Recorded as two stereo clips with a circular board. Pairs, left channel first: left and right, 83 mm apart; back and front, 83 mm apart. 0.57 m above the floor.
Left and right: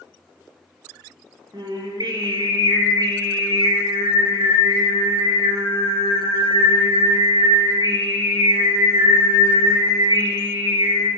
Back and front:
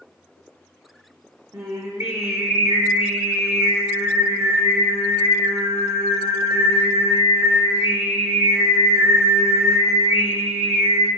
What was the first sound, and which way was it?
Singing, 50° right.